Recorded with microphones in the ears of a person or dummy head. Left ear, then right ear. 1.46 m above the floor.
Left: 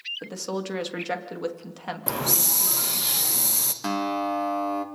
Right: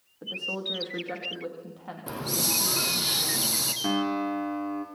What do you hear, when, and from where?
0.2 s a woman speaking: 75° left (ahead or behind), 2.5 m
2.1 s a hiss: 25° left (ahead or behind), 1.0 m
3.8 s a guitar: 60° left (ahead or behind), 1.6 m